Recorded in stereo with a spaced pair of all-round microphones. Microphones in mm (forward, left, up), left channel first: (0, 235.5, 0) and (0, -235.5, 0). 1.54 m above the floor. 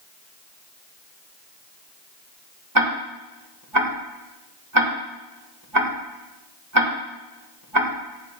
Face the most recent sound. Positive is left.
turn(degrees=-45)  # may be behind; listen again after turning